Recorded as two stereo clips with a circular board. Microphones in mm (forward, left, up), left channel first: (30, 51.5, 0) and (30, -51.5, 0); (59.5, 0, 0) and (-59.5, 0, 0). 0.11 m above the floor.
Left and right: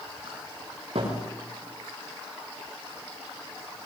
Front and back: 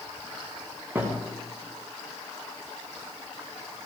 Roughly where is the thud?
Right.